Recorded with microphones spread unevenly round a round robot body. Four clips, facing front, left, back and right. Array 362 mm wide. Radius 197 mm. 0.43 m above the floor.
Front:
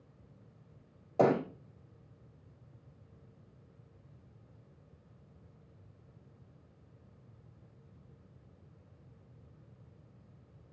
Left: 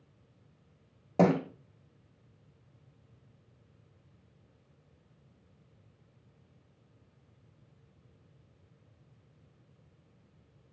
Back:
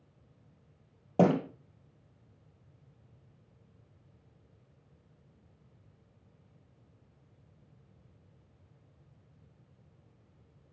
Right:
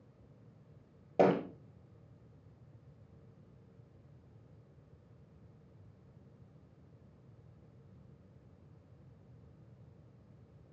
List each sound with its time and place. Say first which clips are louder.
1.2 s a thud: left 2 dB, back 1 dB; 155° left, 3 m